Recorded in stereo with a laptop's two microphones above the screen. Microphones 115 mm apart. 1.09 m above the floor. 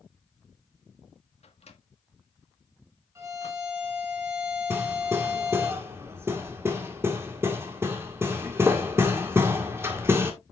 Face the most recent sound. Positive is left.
turn(degrees=-20)  # may be behind; listen again after turning